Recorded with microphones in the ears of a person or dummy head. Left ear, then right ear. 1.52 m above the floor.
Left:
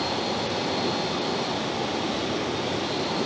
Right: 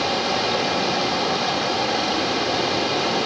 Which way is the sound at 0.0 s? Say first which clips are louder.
Right 6 dB; 60° right (ahead or behind).